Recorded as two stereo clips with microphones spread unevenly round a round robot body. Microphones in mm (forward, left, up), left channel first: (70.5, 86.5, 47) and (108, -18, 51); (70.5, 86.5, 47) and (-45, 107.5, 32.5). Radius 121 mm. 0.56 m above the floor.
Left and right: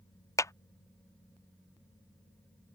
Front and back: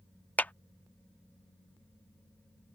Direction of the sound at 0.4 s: 70° left.